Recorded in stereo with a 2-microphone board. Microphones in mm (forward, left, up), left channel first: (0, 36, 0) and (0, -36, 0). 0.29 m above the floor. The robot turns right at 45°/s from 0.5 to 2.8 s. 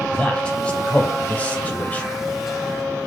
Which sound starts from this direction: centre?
A man speaking, at 0.1 s.